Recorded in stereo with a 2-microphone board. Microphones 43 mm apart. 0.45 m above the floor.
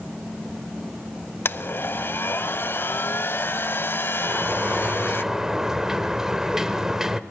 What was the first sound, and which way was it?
A blender, 55° left (ahead or behind).